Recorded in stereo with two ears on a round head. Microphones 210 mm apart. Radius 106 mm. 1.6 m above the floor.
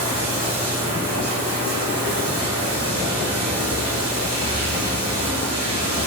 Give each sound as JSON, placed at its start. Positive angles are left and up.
{"t": 0.0, "sound": "running water", "side_deg": -75, "distance_m": 3.0}